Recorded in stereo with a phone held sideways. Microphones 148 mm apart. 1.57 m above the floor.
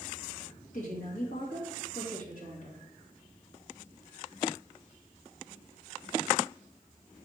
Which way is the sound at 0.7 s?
65° left (ahead or behind).